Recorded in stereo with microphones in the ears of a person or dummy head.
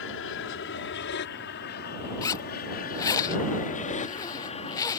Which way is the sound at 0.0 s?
65° left (ahead or behind).